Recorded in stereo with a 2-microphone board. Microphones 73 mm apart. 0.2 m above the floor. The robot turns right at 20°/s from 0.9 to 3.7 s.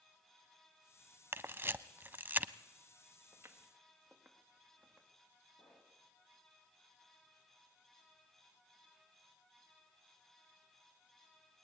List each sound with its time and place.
1.3 s a camera shutter: 30° right (ahead or behind), 0.6 m; by 2.5 s 25° right (ahead or behind), 0.6 m
3.3 s footsteps: 35° right (ahead or behind), 2 m; by 5.1 s centre (ahead or behind), 4.5 m
5.6 s a pop: 70° left (ahead or behind), 8.5 m